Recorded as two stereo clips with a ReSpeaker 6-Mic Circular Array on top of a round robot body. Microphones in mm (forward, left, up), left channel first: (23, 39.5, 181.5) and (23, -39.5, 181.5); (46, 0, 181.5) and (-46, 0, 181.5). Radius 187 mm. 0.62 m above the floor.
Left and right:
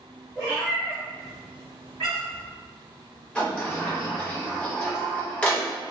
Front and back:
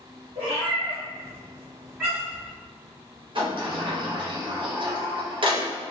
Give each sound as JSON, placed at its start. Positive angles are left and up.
{"t": 0.3, "sound": "a cat meowing", "azimuth_deg": -160, "distance_m": 0.7}
{"t": 3.4, "sound": "a sliding door", "azimuth_deg": 165, "distance_m": 0.9}